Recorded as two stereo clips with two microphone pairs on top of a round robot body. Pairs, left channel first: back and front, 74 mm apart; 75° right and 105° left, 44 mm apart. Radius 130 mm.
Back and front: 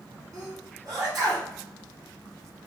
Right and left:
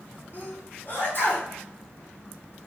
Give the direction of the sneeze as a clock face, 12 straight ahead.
1 o'clock.